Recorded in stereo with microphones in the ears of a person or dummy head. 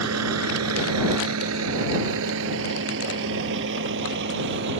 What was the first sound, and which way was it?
A vehicle, 85° right.